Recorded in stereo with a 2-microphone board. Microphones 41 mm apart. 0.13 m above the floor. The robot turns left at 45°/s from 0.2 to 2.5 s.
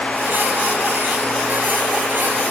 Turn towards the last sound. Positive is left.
No sound to turn to.